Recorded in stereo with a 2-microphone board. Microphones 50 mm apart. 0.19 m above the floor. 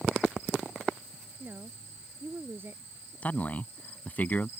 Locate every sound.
1.4 s a woman speaking: 45° right (ahead or behind)
3.2 s a man speaking: 30° left (ahead or behind)